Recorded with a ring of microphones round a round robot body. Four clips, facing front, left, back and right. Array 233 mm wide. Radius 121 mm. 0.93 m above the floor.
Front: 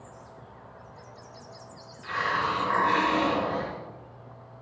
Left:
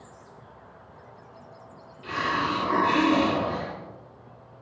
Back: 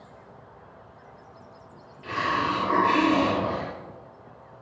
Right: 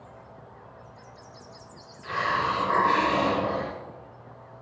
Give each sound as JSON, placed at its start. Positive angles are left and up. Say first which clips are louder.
{"t": 2.0, "sound": "a hiss", "louder": "right 1 dB, back 2 dB", "azimuth_deg": 125, "distance_m": 4.0}